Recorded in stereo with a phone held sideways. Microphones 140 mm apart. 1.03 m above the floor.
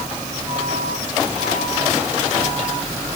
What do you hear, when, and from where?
Only background noise.